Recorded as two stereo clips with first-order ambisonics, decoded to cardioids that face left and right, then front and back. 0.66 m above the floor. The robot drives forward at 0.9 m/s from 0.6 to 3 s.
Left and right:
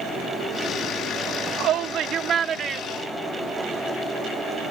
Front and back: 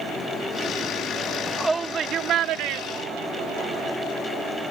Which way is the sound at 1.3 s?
65° right.